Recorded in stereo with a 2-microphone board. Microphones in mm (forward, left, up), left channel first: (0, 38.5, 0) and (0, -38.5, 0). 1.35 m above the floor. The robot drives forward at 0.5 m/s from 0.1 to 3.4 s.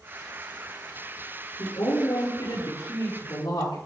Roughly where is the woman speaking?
Left.